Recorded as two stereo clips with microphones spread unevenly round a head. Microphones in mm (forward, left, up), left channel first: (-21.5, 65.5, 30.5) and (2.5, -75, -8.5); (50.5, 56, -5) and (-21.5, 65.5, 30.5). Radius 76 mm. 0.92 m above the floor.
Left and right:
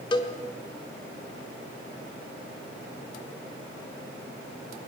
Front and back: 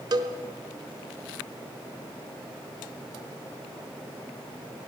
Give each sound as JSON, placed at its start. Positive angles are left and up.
{"t": 0.1, "sound": "a cowbell", "azimuth_deg": 160, "distance_m": 1.6}